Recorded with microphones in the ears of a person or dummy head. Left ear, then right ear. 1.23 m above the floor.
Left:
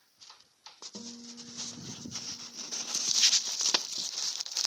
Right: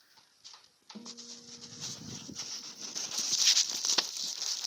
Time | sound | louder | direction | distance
0.9 | a guitar | right 2 dB | 45° left (ahead or behind) | 1.9 m